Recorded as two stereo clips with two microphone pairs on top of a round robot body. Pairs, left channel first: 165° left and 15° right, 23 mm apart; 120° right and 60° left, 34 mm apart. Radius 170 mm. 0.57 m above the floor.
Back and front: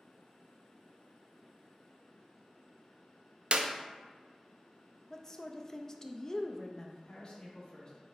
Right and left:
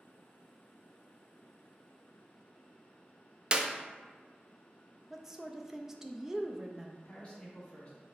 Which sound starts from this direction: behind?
A man speaking, at 7.0 s.